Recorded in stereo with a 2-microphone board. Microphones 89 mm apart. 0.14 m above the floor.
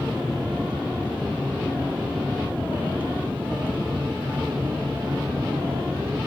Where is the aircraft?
10° right (ahead or behind); by 6.3 s 25° right (ahead or behind).